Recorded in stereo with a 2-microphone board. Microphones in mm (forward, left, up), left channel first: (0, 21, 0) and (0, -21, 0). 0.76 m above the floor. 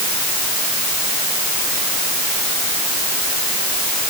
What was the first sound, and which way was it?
Only background noise.